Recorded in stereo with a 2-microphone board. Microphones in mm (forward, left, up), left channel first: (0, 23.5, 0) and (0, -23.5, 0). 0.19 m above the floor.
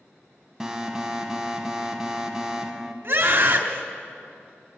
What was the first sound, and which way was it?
An alarm, 10° right (ahead or behind).